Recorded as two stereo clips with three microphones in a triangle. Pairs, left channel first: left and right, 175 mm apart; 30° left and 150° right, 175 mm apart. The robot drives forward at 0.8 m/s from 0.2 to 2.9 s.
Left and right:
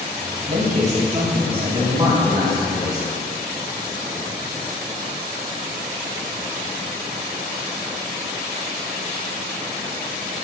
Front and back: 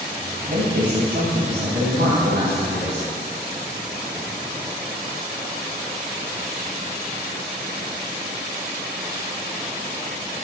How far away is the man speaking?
About 1.8 m.